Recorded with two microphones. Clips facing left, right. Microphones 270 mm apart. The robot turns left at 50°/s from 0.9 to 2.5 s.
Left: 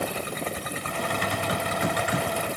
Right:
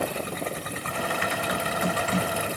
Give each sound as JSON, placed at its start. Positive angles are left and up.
{"t": 1.1, "sound": "typing on a keyboard", "azimuth_deg": 65, "distance_m": 1.2}